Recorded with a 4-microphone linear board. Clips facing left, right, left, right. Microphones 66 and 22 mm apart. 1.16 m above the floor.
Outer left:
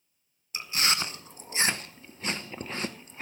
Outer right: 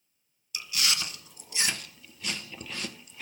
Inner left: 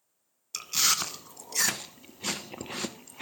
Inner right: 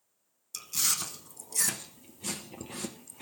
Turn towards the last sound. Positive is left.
turn(degrees=30)  # may be behind; listen again after turning